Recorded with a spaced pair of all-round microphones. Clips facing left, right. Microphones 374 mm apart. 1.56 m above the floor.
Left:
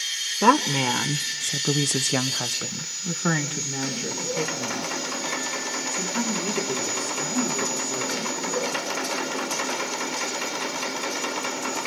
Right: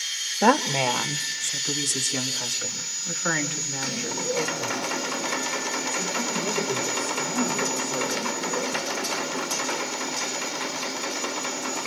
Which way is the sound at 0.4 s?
10° left (ahead or behind).